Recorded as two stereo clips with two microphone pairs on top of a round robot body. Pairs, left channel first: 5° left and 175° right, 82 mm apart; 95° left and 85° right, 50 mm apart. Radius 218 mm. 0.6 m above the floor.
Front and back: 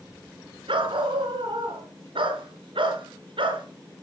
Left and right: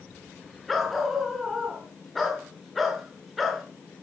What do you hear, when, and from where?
0.7 s a dog barking: 175° right, 5.5 m